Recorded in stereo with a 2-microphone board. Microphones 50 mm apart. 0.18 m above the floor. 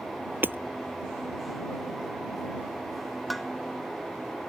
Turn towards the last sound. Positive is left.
turn(degrees=0)  # may be behind; listen again after turning